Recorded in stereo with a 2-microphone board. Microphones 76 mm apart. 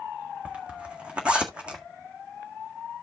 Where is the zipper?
15° right (ahead or behind), 1.6 m.